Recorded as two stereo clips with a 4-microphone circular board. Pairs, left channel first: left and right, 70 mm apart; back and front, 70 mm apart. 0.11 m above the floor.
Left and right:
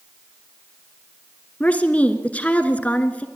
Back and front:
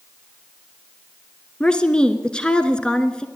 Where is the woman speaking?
120° left, 1.1 m.